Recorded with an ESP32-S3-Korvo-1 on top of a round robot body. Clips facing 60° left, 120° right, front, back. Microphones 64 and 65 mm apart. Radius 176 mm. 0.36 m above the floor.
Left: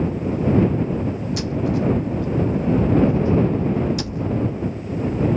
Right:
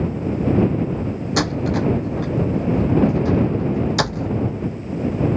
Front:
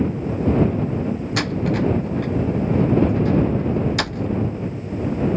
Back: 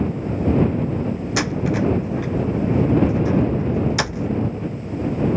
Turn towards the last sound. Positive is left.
turn(degrees=-95)